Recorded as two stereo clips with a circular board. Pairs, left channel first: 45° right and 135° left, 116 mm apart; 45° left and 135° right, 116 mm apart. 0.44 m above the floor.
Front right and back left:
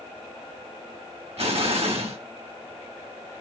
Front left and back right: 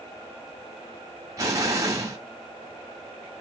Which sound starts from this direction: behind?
An explosion, at 1.4 s.